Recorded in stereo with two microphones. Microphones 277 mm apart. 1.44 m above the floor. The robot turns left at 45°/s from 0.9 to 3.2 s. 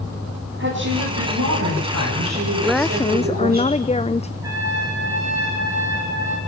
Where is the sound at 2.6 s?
5° right (ahead or behind), 0.5 m; by 4.3 s 25° left (ahead or behind), 0.5 m.